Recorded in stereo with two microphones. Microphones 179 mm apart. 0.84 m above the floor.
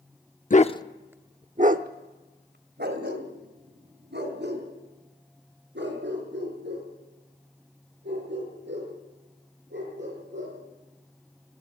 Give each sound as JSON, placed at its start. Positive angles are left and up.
{"t": 0.5, "sound": "a dog barking", "side_deg": 45, "distance_m": 0.7}